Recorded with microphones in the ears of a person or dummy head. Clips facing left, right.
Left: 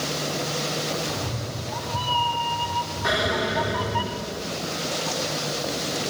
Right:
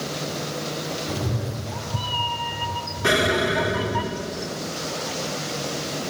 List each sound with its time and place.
1.1 s a cat meowing: 35° right (ahead or behind), 3 m; by 4.0 s 5° left (ahead or behind), 2.5 m
3.0 s an explosion: 40° right (ahead or behind), 3.5 m